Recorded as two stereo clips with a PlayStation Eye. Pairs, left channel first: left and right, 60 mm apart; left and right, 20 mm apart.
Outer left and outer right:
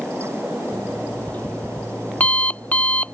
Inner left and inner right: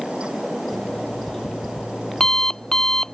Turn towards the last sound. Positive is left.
turn(degrees=25)  # may be behind; listen again after turning